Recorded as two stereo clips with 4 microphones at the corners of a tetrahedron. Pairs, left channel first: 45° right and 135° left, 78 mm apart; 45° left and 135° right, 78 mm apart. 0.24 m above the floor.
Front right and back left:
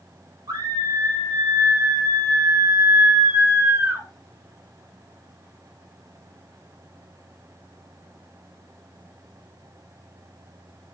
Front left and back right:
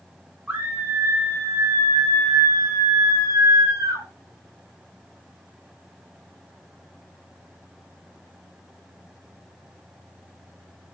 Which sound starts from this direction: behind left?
A scream, at 0.5 s.